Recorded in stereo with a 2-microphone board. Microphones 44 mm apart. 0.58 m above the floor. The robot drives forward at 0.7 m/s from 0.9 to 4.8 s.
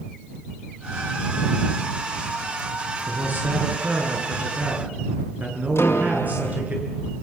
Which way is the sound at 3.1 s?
40° right (ahead or behind).